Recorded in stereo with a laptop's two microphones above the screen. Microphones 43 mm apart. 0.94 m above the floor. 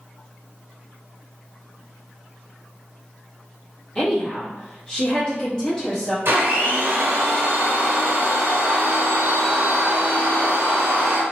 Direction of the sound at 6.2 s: 65° right (ahead or behind).